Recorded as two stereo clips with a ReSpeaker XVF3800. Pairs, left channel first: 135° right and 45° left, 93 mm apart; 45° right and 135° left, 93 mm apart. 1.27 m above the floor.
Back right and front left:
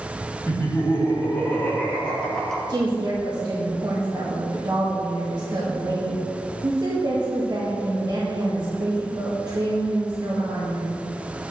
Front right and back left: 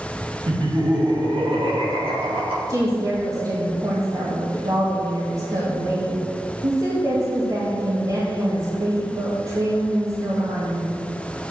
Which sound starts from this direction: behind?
Laughter, at 0.5 s.